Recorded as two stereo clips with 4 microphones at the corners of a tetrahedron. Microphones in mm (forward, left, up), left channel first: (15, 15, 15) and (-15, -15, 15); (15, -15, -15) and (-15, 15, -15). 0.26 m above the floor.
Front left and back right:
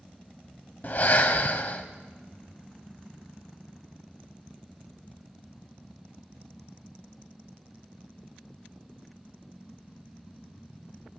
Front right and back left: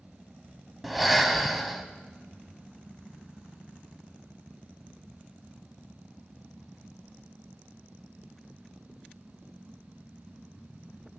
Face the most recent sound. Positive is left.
turn(degrees=50)